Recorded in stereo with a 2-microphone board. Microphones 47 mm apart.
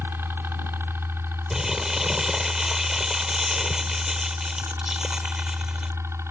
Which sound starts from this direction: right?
A helicopter, at 0.0 s.